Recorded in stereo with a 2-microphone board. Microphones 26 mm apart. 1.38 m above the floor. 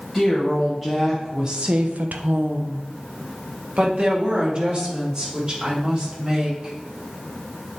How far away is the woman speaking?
About 1.7 m.